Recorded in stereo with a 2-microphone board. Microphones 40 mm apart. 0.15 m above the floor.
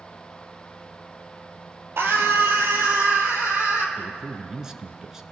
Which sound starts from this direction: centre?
A man speaking, at 4.0 s.